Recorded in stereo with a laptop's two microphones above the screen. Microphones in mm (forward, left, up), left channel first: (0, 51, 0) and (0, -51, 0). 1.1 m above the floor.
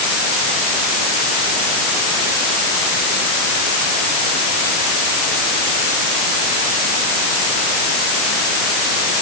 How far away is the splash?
I don't hear a splash.